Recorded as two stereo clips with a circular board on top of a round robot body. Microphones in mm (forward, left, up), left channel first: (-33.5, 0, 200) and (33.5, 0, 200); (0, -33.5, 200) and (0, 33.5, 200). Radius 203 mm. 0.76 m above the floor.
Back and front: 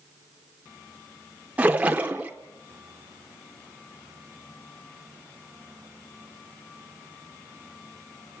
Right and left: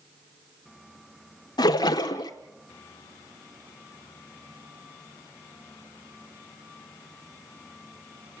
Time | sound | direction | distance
1.6 | a splash | 70° right | 0.6 m